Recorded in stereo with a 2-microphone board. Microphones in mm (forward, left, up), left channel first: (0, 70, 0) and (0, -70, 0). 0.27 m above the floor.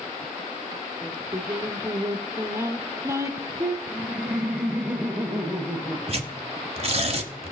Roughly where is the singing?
Right.